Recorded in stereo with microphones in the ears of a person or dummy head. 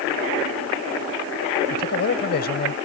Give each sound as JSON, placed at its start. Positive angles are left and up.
{"t": 1.7, "sound": "a man speaking", "side_deg": 50}